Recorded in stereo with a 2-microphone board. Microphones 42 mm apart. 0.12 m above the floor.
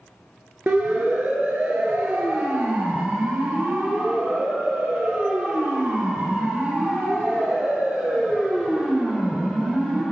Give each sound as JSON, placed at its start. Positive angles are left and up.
{"t": 0.7, "sound": "a siren", "side_deg": -45, "distance_m": 2.5}